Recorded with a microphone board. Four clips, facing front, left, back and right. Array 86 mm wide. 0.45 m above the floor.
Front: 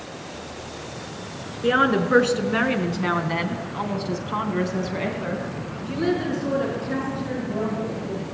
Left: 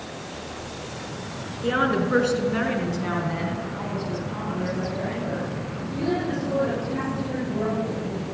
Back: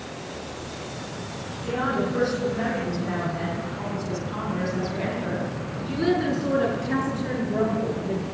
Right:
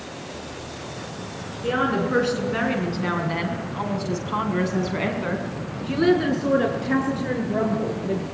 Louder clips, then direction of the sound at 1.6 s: Even, front 6 dB; 5° left.